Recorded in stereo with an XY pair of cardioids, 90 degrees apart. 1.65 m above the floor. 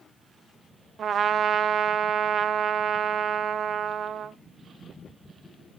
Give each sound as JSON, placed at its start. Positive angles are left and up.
{"t": 1.0, "sound": "a trumpet", "azimuth_deg": -60, "distance_m": 0.8}